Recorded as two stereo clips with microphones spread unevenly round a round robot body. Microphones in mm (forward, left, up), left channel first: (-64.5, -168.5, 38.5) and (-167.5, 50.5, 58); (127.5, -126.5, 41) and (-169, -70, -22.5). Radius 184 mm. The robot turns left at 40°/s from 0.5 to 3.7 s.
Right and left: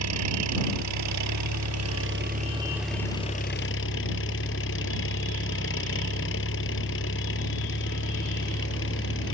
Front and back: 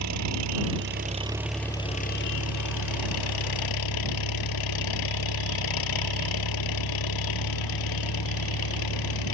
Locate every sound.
0.0 s an engine running: 120° left; by 9.3 s 10° right